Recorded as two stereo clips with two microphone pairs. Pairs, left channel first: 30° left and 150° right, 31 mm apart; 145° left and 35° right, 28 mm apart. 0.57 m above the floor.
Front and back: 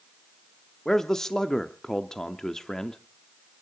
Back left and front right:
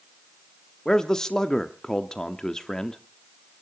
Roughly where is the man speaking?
Left.